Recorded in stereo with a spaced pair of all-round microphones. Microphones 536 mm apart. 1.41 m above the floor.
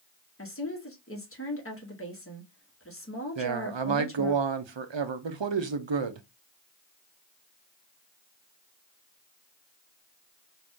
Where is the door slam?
I don't hear a door slam.